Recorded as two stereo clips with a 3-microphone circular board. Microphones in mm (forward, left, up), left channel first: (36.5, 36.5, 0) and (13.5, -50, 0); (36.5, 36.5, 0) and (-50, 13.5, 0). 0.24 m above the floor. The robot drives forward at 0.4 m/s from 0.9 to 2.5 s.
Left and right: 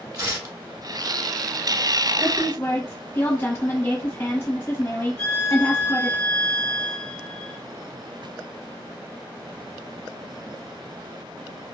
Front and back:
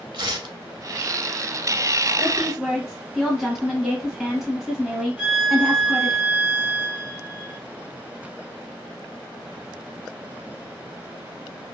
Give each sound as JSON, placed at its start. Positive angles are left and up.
{"t": 0.1, "sound": "tearing paper", "azimuth_deg": -140, "distance_m": 0.6}
{"t": 2.2, "sound": "a woman speaking", "azimuth_deg": 105, "distance_m": 1.4}
{"t": 5.2, "sound": "a violin", "azimuth_deg": 135, "distance_m": 1.4}